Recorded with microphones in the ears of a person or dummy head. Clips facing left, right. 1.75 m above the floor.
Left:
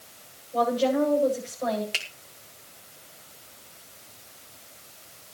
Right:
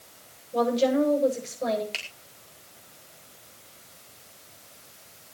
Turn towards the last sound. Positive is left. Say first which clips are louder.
# left 2 dB
turn(degrees=15)  # may be behind; listen again after turning